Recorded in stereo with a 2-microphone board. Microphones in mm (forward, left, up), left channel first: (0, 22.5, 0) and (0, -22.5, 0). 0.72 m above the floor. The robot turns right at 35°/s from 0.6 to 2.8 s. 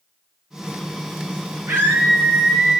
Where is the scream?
60° right, 8.5 m; by 2.8 s 20° right, 8.5 m.